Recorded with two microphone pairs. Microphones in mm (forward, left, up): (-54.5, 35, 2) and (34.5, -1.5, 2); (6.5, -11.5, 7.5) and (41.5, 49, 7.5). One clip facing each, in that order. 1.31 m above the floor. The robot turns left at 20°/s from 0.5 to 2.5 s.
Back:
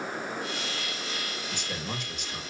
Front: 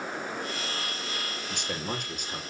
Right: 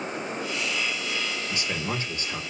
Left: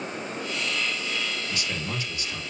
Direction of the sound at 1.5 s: 50° right.